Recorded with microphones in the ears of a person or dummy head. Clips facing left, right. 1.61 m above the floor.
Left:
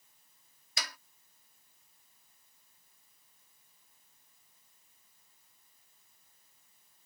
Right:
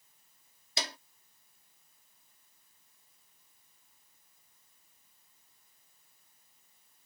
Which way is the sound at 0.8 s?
30° right (ahead or behind).